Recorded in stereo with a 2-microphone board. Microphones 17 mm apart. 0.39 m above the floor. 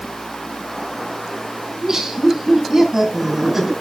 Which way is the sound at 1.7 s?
40° right (ahead or behind).